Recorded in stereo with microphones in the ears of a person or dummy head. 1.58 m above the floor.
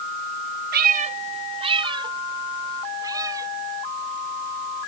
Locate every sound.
0.7 s a cat meowing: 45° right (ahead or behind); by 3.5 s 20° right (ahead or behind)